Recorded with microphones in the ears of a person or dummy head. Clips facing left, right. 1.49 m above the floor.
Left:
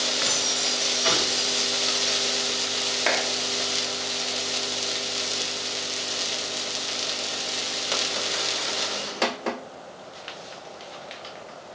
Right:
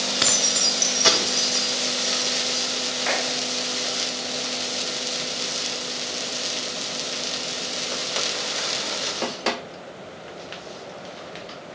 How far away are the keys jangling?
About 0.8 m.